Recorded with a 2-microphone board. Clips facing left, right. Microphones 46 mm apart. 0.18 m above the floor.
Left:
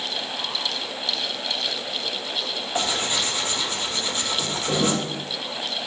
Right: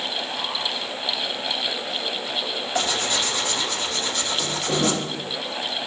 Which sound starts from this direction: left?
Tearing paper, at 2.8 s.